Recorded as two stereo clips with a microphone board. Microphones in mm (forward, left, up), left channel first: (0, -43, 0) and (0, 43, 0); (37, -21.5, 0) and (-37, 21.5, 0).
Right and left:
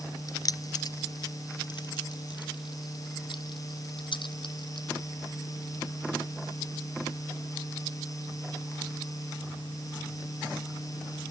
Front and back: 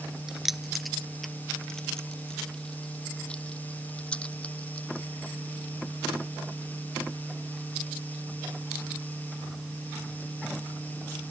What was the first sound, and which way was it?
Keys jangling, 125° right.